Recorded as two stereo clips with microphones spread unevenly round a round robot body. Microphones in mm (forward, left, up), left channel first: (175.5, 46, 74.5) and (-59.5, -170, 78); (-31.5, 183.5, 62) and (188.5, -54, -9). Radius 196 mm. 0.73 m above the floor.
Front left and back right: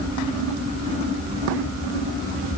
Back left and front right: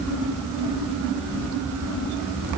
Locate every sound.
Only background noise.